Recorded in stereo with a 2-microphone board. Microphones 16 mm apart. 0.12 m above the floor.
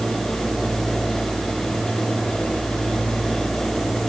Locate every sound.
Only background noise.